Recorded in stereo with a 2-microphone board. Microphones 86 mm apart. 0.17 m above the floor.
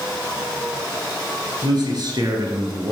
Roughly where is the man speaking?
Right.